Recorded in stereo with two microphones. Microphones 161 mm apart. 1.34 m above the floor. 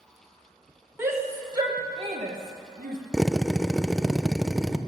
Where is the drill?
Centre (ahead or behind), 0.6 m.